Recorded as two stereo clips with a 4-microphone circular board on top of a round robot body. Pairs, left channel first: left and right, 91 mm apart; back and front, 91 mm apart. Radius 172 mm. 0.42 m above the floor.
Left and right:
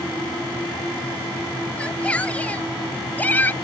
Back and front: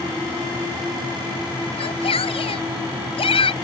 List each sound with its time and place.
1.8 s a shout: 170° left; by 3.5 s 160° left